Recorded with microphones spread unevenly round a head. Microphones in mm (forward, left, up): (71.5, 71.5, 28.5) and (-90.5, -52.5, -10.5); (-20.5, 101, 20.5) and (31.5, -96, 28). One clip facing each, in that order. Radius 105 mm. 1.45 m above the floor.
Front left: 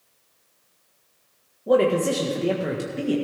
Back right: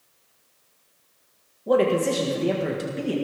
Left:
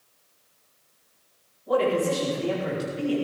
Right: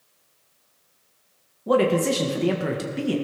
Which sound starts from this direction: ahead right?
A man speaking, at 1.7 s.